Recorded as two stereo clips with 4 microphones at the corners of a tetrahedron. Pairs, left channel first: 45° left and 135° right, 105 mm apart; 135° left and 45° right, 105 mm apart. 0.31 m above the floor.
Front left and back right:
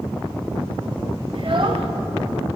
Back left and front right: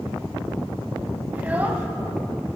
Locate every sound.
1.3 s a child speaking: 115° right, 0.8 m